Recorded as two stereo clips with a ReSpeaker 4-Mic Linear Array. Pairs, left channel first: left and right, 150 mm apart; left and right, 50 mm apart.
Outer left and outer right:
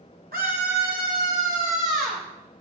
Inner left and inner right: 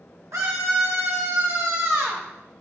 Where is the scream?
75° right (ahead or behind), 6 m; by 2.2 s 55° right (ahead or behind), 4.5 m.